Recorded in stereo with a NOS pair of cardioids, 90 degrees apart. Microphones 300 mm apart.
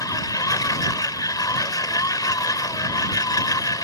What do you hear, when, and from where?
0.0 s a machine running: 10° left